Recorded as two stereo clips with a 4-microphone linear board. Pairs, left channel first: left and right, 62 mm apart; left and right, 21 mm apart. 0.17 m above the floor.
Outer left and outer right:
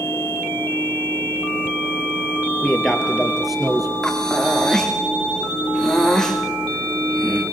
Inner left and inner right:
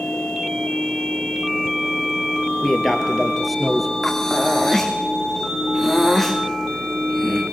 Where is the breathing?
10° left (ahead or behind), 3.5 m.